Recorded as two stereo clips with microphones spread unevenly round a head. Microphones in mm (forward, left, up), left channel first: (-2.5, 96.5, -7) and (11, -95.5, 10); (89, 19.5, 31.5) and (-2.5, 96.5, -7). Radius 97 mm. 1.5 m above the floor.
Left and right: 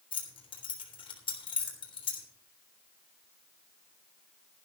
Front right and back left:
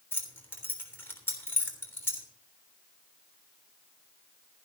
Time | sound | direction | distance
0.1 | keys jangling | 30° left | 3.5 m